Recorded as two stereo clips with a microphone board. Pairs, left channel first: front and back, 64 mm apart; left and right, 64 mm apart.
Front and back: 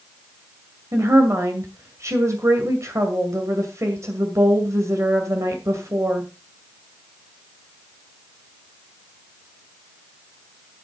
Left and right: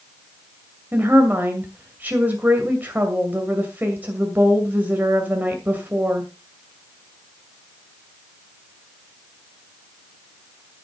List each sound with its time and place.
0.9 s a woman speaking: 150° right, 2 m